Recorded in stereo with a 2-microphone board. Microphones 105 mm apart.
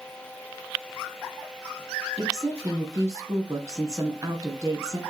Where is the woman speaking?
35° right (ahead or behind), 2 m.